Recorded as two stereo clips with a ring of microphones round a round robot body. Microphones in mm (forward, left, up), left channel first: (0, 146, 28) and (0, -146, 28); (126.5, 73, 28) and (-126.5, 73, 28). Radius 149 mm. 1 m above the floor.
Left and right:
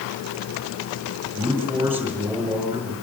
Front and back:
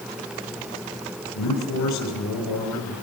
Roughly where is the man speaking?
Ahead.